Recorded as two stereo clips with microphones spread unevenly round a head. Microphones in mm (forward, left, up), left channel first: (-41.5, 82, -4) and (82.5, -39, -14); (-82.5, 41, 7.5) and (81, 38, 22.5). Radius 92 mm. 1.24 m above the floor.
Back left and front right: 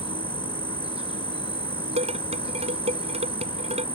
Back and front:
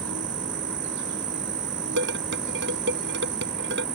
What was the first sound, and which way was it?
An insect, 15° left.